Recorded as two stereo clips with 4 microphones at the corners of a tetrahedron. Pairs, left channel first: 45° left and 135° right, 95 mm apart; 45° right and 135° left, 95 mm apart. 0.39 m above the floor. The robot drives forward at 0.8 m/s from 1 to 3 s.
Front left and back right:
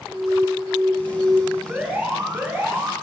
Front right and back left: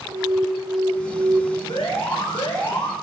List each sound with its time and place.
0.1 s an alarm: 145° left, 3.5 m
1.7 s an alarm: 60° right, 3 m; by 2.9 s 75° right, 3 m